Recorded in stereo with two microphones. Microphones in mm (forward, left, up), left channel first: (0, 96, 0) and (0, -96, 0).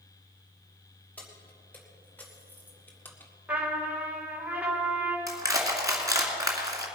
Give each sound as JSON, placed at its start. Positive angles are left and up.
{"t": 1.2, "sound": "keys jangling", "side_deg": 10, "distance_m": 3.0}
{"t": 3.5, "sound": "a trumpet", "side_deg": -5, "distance_m": 2.5}
{"t": 5.3, "sound": "crushing", "side_deg": -15, "distance_m": 2.0}